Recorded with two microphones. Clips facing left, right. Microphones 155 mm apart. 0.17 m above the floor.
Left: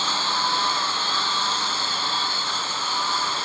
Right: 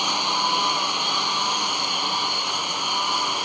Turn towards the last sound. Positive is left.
turn(degrees=-15)  # may be behind; listen again after turning